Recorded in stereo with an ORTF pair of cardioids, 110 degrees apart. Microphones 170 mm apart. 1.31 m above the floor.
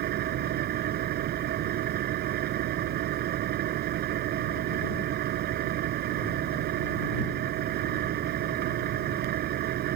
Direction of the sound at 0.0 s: 70° right.